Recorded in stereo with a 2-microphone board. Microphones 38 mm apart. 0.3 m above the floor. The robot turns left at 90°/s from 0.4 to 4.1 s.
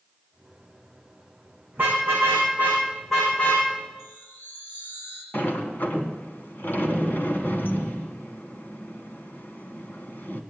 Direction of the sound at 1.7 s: 60° right (ahead or behind).